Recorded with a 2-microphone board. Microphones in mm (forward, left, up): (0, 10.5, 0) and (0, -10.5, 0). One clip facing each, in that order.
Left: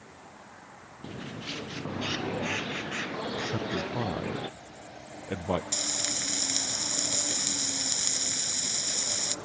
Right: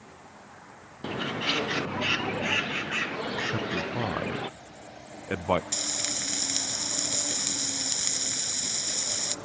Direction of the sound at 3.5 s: 50° right (ahead or behind).